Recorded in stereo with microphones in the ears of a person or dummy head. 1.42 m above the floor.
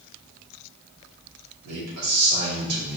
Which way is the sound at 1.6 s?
85° right.